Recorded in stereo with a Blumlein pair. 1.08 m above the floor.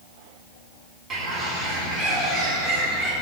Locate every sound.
1.1 s a bird: 15° right, 3.5 m